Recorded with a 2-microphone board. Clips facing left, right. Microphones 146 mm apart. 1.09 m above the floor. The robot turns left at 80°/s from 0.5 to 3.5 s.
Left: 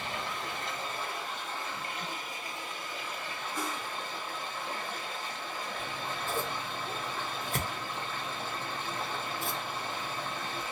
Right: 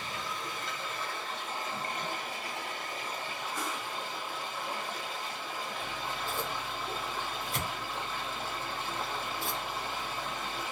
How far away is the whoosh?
About 1.1 m.